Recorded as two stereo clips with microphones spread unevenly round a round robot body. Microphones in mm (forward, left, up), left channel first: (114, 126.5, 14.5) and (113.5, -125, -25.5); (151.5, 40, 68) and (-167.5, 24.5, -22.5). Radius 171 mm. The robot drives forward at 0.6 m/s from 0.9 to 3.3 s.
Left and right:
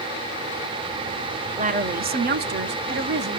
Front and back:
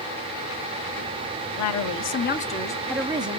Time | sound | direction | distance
1.6 | a woman speaking | 40° right | 1.1 m